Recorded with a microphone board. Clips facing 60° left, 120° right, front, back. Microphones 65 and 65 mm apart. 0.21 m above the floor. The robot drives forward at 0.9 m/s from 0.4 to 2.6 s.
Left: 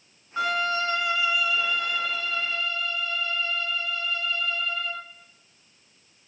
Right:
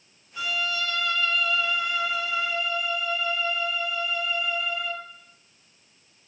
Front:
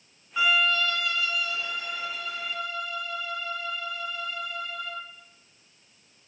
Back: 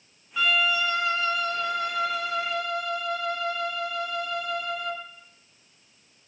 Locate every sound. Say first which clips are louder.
0.4 s a violin: left 4 dB, even; 75° left, 0.8 m; by 5.0 s 160° left, 1.9 m